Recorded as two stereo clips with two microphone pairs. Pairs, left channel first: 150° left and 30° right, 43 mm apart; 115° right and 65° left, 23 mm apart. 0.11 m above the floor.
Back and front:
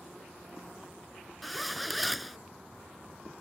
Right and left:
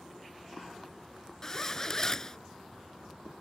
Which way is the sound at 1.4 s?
110° right.